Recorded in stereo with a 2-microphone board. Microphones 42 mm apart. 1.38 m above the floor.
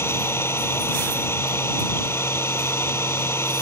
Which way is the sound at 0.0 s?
70° left (ahead or behind).